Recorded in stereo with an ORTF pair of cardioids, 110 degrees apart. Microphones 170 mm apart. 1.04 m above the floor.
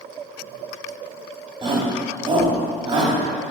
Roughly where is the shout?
Ahead right.